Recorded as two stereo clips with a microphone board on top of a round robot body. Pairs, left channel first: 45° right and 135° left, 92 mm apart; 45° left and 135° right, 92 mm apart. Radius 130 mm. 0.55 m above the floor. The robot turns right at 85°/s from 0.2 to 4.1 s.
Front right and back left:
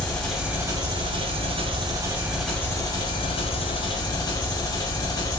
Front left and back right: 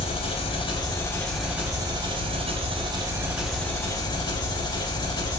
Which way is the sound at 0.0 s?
30° left.